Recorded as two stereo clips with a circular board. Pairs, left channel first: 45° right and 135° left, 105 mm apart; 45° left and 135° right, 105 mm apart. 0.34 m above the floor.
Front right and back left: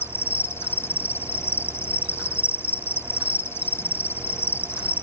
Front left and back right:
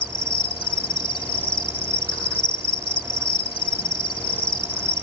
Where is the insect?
20° left.